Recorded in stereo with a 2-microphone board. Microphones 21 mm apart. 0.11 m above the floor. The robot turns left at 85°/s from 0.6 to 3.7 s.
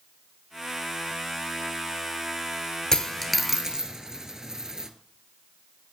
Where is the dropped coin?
25° left (ahead or behind), 0.9 m; by 4.9 s 25° right (ahead or behind), 0.9 m.